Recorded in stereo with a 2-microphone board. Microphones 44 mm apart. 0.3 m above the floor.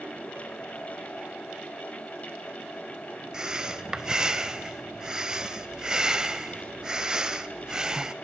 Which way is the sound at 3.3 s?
15° right (ahead or behind).